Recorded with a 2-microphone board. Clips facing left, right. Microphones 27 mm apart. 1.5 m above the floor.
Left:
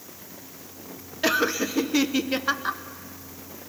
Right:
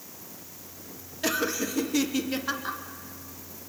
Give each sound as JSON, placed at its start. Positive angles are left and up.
{"t": 1.2, "sound": "laughter", "side_deg": 25, "distance_m": 0.8}